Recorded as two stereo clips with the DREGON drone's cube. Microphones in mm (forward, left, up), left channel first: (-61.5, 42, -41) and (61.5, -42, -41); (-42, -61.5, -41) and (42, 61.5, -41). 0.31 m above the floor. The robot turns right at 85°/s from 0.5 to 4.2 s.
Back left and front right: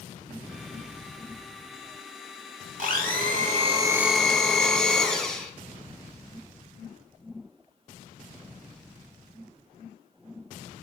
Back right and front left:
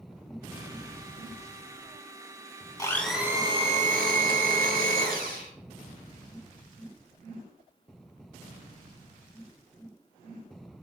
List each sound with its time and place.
2.8 s a blender: 60° right, 0.5 m; by 5.5 s 60° left, 0.5 m